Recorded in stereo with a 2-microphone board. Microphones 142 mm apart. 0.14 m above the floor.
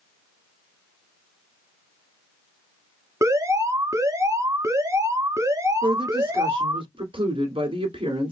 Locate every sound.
3.2 s an alarm: 20° right (ahead or behind), 0.8 m
5.8 s a woman speaking: 40° right (ahead or behind), 1.7 m